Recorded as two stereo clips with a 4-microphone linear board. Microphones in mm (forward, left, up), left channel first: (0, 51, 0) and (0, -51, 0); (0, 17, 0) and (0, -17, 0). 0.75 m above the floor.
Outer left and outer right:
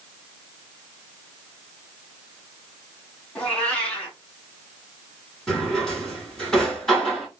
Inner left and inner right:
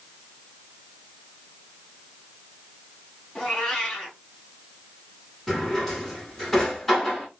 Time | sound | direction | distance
3.4 | a cat meowing | 10° left (ahead or behind) | 2.0 m
5.5 | a drawer | 5° left (ahead or behind) | 3 m